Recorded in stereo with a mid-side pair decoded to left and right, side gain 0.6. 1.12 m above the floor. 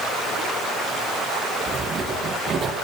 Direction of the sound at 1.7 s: 35° right.